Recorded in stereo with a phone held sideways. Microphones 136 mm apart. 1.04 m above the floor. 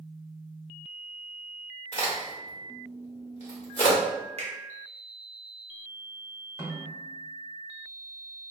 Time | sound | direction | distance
1.9 | a crack | 60° left (ahead or behind) | 1.2 m
4.4 | a finger snap | 50° right (ahead or behind) | 0.9 m
6.6 | a snare drum | 20° right (ahead or behind) | 1.2 m